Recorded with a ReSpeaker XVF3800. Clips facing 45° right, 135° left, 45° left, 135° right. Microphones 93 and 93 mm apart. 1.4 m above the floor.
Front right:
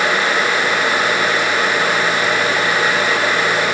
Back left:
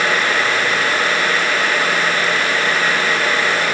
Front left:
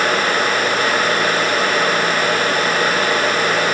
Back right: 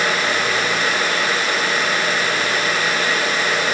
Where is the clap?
No clap in this recording.